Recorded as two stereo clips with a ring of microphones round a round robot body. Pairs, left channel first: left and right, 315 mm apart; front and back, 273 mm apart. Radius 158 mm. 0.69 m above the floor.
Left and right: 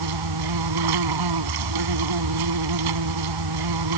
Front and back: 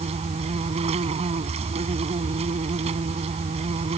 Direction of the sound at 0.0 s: 110° right.